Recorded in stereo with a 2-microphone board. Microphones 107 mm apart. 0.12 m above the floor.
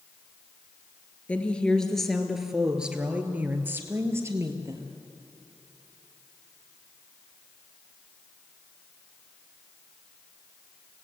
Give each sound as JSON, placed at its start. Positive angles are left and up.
{"t": 1.3, "sound": "a woman speaking", "side_deg": 15, "distance_m": 2.5}